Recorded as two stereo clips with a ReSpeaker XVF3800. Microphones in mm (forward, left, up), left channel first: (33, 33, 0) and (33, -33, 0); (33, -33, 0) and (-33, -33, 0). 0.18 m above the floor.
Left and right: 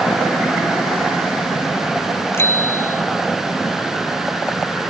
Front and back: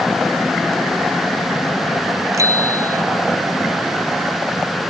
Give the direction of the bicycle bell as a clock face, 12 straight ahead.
7 o'clock.